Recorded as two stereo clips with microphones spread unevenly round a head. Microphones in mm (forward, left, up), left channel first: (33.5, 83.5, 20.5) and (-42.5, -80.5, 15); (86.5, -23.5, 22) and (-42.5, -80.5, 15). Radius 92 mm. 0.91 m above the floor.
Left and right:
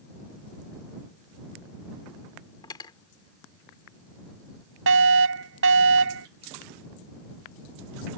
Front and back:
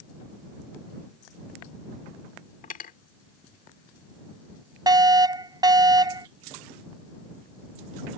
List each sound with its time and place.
2.6 s cutlery clinking: 5° right
4.9 s a fire alarm: 95° right